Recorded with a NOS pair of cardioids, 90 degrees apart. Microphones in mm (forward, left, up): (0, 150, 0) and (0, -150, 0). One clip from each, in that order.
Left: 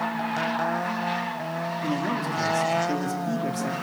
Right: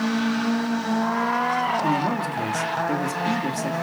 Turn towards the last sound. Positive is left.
turn(degrees=-20)